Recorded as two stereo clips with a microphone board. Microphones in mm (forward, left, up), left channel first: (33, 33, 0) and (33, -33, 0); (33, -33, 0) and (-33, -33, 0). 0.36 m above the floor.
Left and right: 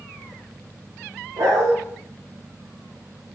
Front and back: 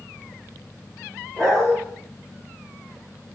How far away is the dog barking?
About 6.5 m.